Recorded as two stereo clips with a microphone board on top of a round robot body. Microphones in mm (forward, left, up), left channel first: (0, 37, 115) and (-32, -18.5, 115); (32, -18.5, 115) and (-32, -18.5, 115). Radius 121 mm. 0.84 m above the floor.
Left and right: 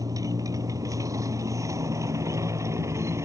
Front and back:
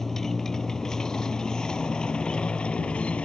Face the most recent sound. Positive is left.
turn(degrees=-70)